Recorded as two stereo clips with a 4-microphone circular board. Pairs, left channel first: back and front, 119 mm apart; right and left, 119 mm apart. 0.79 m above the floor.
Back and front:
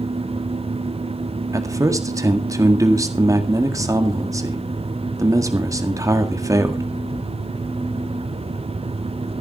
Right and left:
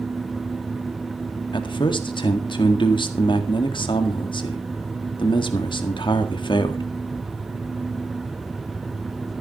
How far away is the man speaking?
About 1.8 m.